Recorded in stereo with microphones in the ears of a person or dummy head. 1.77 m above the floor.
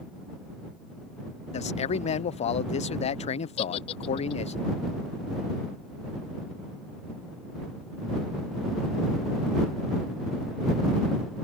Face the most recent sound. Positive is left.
turn(degrees=40)  # may be behind; listen again after turning